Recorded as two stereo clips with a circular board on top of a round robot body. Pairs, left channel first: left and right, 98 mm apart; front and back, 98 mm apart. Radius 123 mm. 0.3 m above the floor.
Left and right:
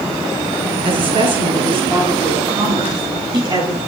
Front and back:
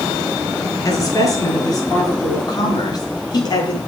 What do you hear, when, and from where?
0.8 s a woman speaking: 55° right, 6.5 m; by 3.8 s 45° right, 5.5 m